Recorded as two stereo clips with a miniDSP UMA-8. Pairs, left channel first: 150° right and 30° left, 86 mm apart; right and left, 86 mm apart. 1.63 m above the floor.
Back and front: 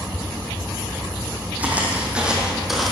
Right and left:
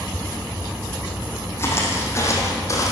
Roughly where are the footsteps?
Ahead right.